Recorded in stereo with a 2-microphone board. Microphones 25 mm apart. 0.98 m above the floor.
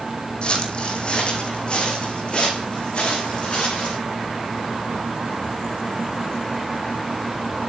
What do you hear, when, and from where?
0.4 s footsteps: 45° left (ahead or behind), 3 m; by 4.0 s 50° left (ahead or behind), 5.5 m